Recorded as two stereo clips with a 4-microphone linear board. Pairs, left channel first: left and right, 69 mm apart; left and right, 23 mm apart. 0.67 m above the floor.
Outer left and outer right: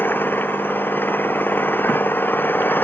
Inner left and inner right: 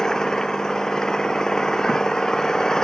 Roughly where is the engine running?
Left.